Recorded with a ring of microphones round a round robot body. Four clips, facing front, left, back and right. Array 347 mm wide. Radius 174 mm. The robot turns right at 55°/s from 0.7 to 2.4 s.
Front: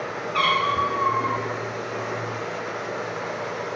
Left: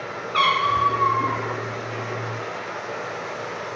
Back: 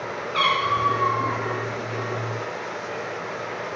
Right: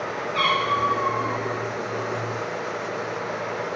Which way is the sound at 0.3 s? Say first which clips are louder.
Left 3 dB, even; 95° left.